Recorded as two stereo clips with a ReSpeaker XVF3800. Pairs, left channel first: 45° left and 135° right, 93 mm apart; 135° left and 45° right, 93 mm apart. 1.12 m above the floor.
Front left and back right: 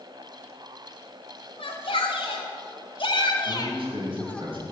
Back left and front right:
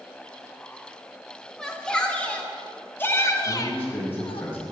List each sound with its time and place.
1.6 s a shout: 50° left, 3.5 m; by 4.5 s 125° left, 1.3 m
3.5 s a man speaking: 155° right, 5.5 m